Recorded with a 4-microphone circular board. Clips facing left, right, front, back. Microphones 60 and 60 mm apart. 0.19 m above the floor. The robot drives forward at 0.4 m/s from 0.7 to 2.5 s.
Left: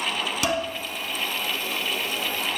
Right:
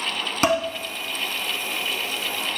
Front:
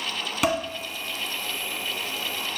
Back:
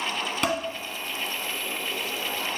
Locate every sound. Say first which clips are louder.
0.4 s dishes clattering: right 6 dB, front 3 dB; 80° right, 1.2 m